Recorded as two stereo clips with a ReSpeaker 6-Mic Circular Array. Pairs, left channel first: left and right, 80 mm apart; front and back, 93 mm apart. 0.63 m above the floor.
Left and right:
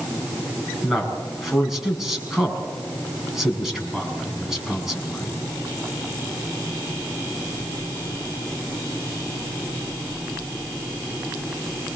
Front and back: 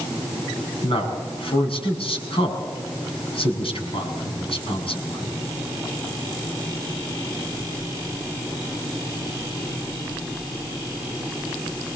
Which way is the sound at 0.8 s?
5° right.